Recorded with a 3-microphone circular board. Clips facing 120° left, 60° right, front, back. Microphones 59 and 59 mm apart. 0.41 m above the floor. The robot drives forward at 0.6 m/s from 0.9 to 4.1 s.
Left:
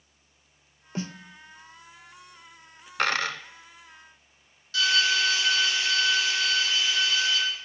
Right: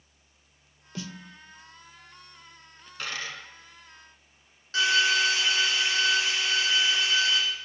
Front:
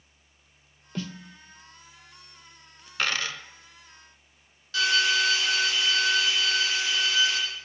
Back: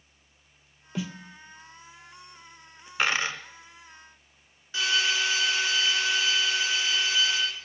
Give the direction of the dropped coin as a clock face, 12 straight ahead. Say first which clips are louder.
Left 9 dB, back 3 dB; 8 o'clock.